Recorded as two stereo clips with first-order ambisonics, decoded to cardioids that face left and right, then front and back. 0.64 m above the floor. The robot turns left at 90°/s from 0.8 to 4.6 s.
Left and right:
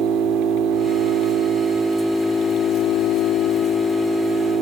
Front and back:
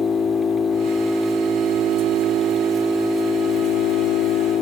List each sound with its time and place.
0.0 s an engine running: 70° right, 1.4 m; by 4.6 s 50° right, 1.4 m